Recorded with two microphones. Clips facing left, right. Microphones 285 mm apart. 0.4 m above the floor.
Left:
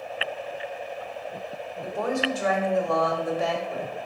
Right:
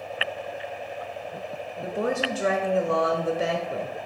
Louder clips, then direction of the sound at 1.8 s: Even; 30° right (ahead or behind).